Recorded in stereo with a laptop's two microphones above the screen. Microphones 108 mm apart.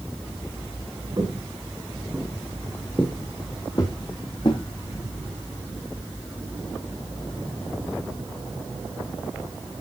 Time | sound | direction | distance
1.2 | footsteps | 35° right (ahead or behind) | 3 m